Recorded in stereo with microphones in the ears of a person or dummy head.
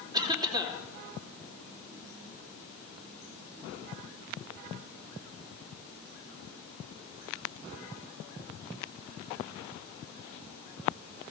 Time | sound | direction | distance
0.1 | a cough | 20° right (ahead or behind) | 3 m